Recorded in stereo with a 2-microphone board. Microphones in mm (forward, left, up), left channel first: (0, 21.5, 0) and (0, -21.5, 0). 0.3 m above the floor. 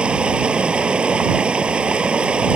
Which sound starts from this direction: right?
Running water, at 0.0 s.